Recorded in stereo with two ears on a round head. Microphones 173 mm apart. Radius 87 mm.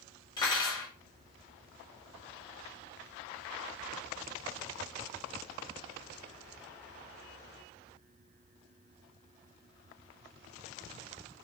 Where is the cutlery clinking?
25° left (ahead or behind), 1.1 m.